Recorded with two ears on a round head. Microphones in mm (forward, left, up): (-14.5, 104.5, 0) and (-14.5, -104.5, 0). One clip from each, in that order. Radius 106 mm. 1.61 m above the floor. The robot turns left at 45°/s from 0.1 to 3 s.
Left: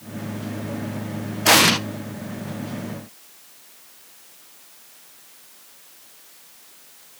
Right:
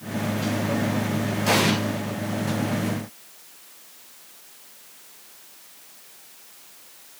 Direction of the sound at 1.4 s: 45° left (ahead or behind).